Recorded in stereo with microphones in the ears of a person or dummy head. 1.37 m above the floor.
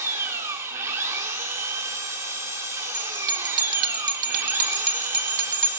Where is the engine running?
15° right (ahead or behind), 0.7 m.